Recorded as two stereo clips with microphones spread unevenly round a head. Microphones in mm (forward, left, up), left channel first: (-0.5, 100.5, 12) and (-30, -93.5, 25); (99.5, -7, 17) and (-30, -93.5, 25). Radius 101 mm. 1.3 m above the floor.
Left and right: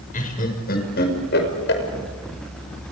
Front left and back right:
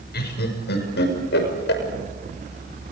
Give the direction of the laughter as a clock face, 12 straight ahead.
11 o'clock.